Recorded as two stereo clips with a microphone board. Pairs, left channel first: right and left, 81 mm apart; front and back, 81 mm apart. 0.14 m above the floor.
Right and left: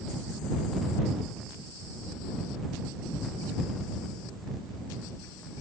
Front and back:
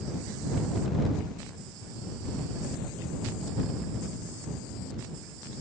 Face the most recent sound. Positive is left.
No sound to turn to.